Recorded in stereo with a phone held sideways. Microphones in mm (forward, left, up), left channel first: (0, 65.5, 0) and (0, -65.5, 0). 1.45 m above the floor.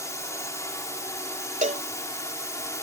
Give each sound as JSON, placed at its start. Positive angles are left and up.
{"t": 0.0, "sound": "a drone", "side_deg": 20}
{"t": 1.6, "sound": "a cowbell", "side_deg": -75}